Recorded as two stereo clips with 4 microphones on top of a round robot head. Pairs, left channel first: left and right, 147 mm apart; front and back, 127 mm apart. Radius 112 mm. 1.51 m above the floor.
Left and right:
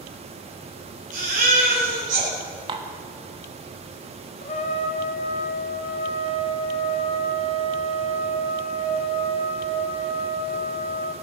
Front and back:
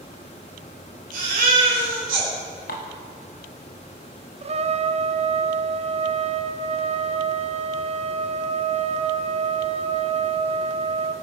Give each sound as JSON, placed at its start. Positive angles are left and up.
{"t": 1.1, "sound": "a baby crying", "azimuth_deg": -140, "distance_m": 4.0}
{"t": 2.7, "sound": "dishes clattering", "azimuth_deg": -40, "distance_m": 1.3}
{"t": 4.4, "sound": "a trumpet", "azimuth_deg": 140, "distance_m": 0.9}